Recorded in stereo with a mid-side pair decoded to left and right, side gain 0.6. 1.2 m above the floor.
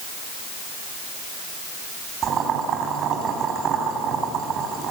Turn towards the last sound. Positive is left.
turn(degrees=-45)